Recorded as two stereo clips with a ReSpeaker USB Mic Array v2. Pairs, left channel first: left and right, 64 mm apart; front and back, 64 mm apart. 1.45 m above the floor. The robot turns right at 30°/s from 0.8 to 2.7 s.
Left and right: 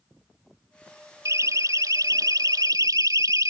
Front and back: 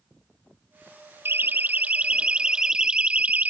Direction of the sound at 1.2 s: 125° right.